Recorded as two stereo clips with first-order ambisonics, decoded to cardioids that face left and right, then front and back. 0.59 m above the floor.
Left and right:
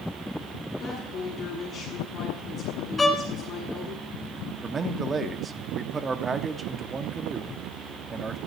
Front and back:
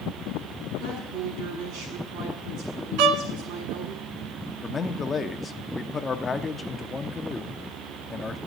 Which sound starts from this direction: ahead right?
A man speaking, at 4.6 s.